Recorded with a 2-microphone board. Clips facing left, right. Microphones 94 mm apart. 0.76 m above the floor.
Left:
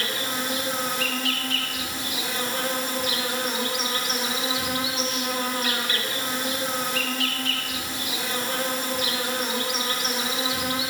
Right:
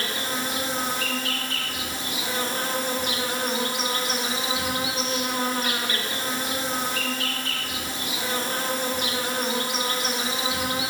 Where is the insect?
40° right (ahead or behind), 3.5 m.